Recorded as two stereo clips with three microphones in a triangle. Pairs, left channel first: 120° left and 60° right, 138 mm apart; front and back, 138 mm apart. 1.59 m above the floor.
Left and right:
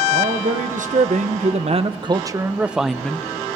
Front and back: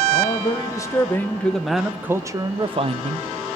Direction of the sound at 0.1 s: 55° right.